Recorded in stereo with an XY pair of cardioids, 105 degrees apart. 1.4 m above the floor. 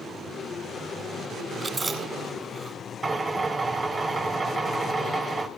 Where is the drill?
30° right, 4 m.